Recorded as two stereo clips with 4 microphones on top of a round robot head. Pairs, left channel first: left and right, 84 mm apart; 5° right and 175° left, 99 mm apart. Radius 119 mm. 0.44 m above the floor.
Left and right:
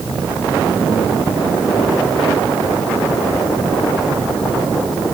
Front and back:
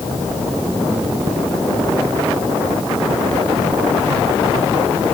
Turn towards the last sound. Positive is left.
No sound to turn to.